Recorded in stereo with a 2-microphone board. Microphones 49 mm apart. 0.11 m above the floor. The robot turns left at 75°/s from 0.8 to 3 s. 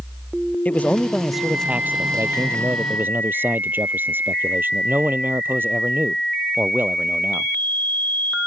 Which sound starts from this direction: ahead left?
A man speaking, at 0.7 s.